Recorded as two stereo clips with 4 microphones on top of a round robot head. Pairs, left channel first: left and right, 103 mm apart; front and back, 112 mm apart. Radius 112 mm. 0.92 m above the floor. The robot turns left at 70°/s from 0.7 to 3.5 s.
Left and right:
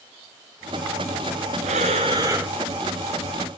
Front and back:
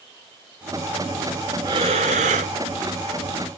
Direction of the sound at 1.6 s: 115° right.